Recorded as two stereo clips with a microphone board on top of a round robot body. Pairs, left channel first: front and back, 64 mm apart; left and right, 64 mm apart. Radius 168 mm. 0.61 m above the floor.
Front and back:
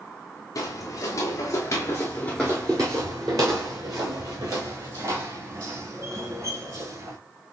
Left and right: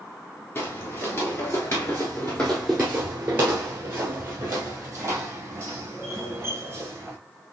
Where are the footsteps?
35° left, 1.2 m; by 7.2 s 145° right, 3 m.